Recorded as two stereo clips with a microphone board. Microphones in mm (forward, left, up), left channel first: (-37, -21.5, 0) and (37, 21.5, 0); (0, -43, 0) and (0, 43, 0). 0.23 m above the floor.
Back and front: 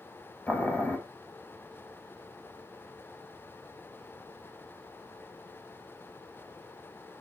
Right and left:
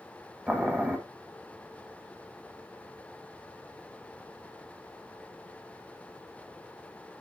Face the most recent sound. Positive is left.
turn(degrees=160)